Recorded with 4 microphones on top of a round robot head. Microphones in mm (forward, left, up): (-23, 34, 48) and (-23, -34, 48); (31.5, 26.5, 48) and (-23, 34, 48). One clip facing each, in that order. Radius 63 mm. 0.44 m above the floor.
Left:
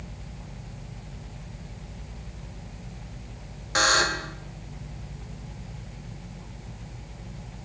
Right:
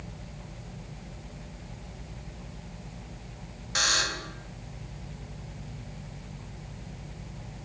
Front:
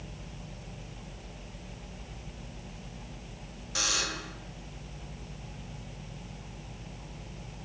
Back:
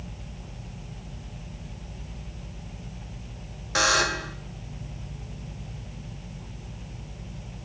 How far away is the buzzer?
About 1.4 m.